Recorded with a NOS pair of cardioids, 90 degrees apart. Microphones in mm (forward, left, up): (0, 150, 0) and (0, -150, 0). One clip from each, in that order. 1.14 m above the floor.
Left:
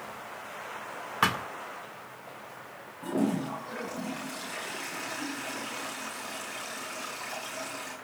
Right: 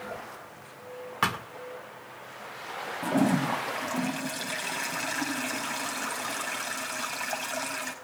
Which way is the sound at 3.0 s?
65° right.